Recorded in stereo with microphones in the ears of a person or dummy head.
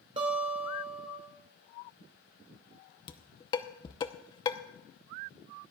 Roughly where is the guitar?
Right.